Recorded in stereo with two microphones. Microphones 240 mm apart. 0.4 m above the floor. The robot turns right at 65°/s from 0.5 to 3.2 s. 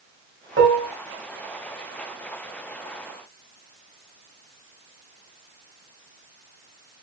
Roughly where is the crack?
I don't hear a crack.